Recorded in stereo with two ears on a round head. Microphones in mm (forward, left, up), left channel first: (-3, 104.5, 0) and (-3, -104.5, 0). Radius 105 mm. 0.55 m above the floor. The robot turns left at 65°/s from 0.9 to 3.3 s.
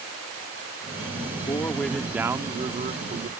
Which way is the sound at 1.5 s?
30° left.